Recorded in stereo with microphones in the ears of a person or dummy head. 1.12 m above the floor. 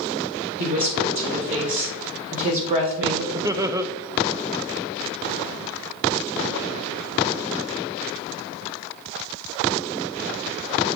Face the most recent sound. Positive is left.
turn(degrees=-20)  # may be behind; listen again after turning